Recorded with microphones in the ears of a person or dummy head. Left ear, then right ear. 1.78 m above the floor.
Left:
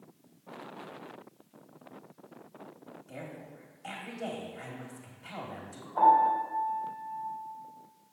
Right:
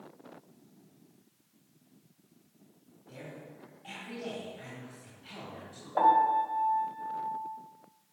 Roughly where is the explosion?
I don't hear an explosion.